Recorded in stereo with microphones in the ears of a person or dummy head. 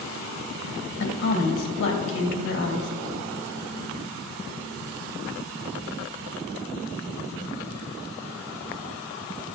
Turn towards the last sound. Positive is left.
turn(degrees=60)  # may be behind; listen again after turning